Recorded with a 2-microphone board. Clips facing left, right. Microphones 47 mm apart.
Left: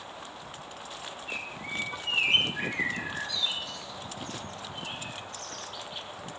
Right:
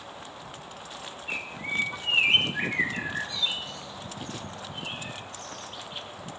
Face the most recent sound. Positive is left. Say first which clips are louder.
# right 5 dB
turn(degrees=-30)  # may be behind; listen again after turning